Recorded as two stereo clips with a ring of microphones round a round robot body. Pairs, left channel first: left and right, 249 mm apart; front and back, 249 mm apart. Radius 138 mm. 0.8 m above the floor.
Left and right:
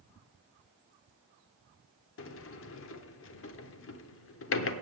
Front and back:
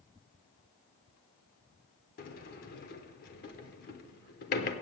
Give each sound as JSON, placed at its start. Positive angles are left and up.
{"t": 2.2, "sound": "a sliding door", "azimuth_deg": 55, "distance_m": 0.8}